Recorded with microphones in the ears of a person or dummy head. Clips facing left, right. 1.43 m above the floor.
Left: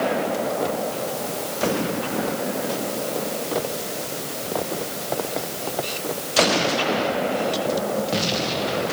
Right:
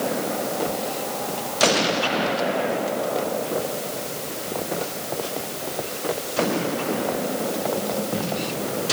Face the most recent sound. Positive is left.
No sound to turn to.